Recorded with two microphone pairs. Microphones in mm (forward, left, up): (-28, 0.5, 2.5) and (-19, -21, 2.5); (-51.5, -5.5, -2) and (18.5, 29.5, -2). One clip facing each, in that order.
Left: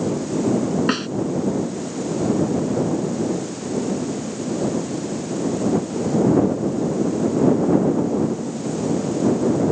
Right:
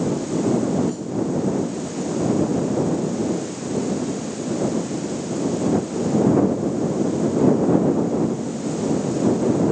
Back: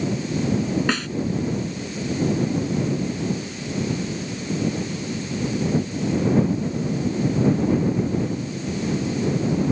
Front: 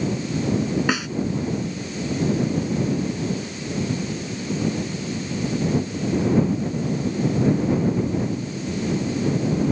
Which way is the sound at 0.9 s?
110° left.